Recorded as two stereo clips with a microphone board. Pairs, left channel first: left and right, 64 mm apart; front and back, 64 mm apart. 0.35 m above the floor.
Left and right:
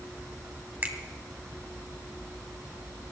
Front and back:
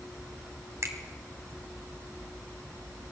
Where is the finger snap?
150° right, 2 m.